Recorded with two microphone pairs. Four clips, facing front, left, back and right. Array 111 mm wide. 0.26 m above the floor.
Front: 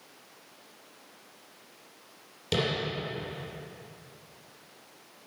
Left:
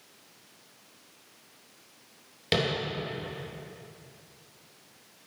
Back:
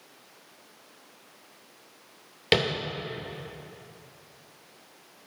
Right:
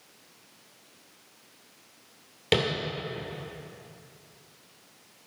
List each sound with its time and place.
2.5 s tapping: straight behind, 2.5 m